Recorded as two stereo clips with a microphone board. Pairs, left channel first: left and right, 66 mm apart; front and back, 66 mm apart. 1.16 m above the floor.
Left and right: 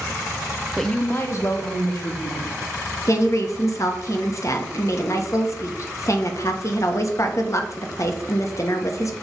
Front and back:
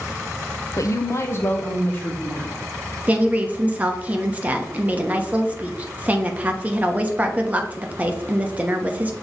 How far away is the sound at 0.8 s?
About 0.6 m.